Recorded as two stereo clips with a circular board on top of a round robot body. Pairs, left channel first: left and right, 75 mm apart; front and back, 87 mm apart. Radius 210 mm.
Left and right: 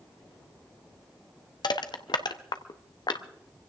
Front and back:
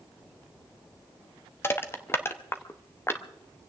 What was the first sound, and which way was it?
Crushing, 65° left.